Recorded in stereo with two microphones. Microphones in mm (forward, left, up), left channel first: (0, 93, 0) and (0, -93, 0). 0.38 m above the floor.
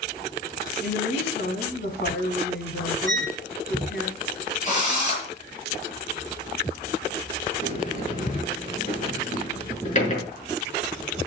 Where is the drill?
40° left (ahead or behind), 8.5 m.